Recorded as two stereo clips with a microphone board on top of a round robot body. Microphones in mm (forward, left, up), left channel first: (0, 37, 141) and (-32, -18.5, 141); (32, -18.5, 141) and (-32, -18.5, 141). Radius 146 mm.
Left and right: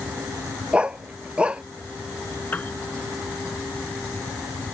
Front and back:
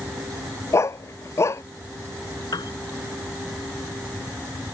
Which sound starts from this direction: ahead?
A piano, at 2.5 s.